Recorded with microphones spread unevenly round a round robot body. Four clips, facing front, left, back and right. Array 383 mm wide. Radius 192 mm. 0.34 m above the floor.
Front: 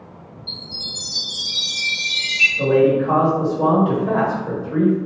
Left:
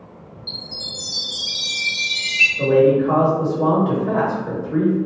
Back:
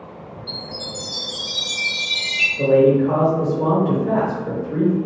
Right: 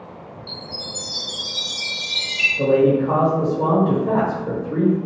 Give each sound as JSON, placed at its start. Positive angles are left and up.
{"t": 0.5, "sound": "a chime", "azimuth_deg": 160, "distance_m": 1.3}
{"t": 2.6, "sound": "a man speaking", "azimuth_deg": -120, "distance_m": 1.3}